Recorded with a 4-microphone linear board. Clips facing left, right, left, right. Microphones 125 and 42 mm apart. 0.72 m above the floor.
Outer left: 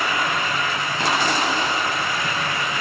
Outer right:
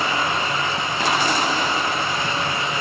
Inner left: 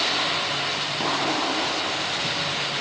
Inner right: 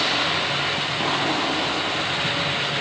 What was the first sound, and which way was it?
Only background noise.